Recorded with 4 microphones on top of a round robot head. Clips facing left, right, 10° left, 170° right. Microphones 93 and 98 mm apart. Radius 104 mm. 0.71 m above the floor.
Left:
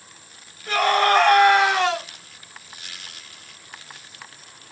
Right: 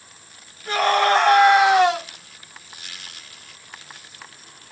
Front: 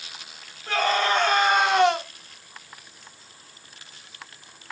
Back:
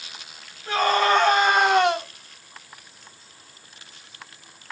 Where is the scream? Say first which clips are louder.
Even, back 3 dB; 140° right, 1.9 m; by 2.0 s 165° right, 1.4 m.